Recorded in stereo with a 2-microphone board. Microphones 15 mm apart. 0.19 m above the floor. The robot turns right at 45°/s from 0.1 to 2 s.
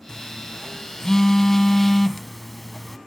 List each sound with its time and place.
0.1 s a phone buzzing: 35° left (ahead or behind), 0.6 m; by 3.0 s 10° left (ahead or behind), 0.6 m